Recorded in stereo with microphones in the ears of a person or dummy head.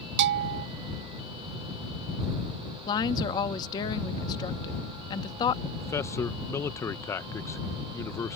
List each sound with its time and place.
0.2 s a bell: 60° right (ahead or behind)
2.9 s a woman speaking: 25° left (ahead or behind)
5.8 s a man speaking: 15° left (ahead or behind)